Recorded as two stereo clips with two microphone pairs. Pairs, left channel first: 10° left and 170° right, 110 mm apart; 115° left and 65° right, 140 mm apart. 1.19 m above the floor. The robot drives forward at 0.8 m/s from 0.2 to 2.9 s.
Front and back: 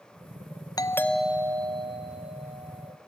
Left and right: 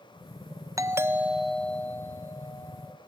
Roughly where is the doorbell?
Ahead.